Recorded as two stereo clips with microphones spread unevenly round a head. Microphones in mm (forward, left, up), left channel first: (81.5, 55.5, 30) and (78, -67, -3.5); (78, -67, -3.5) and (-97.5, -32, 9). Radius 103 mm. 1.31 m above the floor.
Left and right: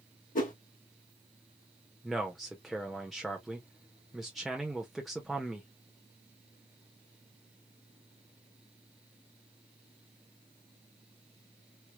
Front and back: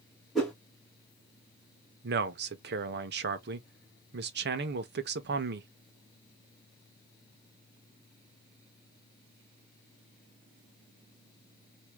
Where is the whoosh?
80° left, 2 m.